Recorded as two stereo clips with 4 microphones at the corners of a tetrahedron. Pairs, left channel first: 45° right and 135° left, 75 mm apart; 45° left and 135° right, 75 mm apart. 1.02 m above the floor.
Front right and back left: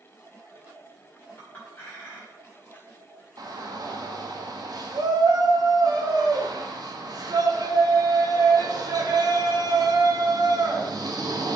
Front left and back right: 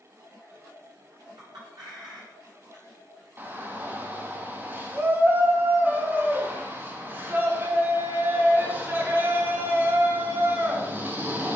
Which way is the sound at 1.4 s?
110° right.